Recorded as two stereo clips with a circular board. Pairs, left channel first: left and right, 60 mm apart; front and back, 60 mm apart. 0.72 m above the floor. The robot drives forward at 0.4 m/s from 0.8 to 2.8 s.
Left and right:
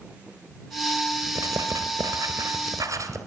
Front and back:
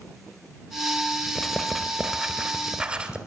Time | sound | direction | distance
1.4 | writing | 85° right | 1.5 m